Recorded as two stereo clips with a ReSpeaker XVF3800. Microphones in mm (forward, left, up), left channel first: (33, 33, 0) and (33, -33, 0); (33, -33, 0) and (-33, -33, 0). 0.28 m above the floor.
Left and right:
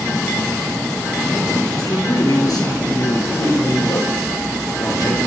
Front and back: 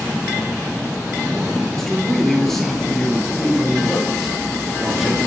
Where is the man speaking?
85° left, 6.5 m; by 5.2 s 95° left, 4.5 m.